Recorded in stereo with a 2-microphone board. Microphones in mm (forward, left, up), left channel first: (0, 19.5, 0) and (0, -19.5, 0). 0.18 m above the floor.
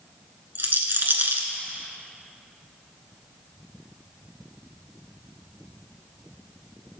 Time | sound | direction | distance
0.6 | a rattle | 55° right (ahead or behind) | 1.1 m